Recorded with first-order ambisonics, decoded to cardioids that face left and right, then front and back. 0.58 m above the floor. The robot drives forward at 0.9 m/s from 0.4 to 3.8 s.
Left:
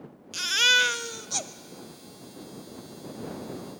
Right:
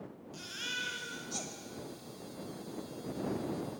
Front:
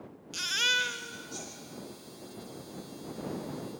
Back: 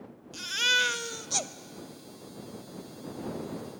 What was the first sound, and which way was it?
A baby crying, 65° left.